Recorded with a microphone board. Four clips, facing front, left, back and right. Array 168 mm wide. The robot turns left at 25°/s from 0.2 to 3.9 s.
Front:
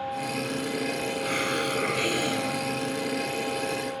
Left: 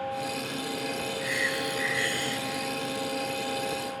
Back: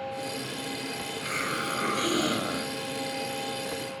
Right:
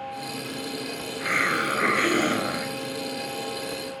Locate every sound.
1.2 s a hiss: 80° right; by 2.8 s 115° right